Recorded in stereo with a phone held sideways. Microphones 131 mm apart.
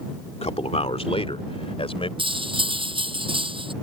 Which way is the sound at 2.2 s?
40° right (ahead or behind).